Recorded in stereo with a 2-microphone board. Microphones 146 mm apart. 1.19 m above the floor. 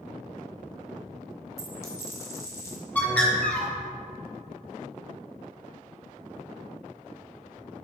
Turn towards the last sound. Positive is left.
turn(degrees=10)  # may be behind; listen again after turning